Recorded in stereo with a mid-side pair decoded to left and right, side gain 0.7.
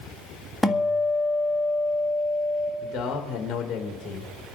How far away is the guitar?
About 1.7 m.